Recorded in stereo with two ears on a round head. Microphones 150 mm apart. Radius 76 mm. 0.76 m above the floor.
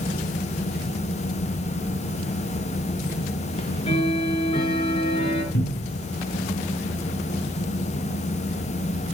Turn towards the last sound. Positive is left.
turn(degrees=85)